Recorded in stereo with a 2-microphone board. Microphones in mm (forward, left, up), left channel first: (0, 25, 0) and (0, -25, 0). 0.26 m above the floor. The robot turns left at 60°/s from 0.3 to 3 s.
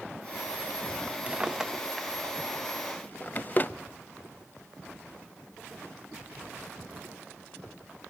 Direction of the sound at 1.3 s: 25° right (ahead or behind).